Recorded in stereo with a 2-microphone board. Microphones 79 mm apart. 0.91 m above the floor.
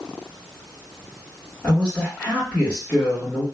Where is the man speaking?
25° left (ahead or behind), 1.5 m.